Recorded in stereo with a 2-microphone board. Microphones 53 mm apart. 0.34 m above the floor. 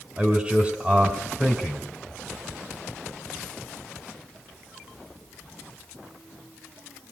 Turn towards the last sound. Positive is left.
turn(degrees=-20)  # may be behind; listen again after turning